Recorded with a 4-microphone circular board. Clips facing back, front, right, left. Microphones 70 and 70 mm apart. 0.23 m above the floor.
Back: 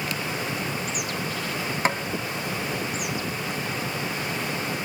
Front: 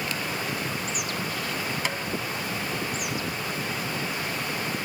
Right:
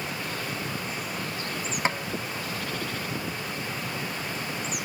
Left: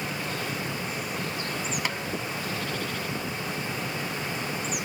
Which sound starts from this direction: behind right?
Tapping, at 1.9 s.